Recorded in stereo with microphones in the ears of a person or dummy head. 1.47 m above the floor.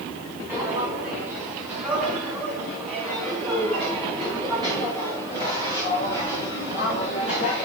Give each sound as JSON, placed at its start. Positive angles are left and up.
{"t": 0.5, "sound": "footsteps", "side_deg": -15, "distance_m": 8.0}